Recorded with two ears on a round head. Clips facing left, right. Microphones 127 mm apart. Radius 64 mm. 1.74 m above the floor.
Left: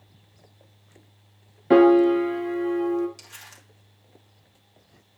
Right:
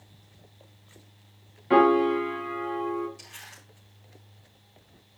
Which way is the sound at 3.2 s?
80° left.